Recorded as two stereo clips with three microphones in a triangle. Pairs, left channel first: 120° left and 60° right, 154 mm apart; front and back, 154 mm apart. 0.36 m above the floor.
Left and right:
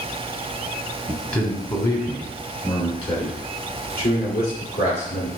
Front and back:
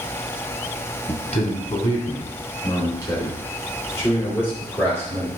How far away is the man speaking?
About 2 m.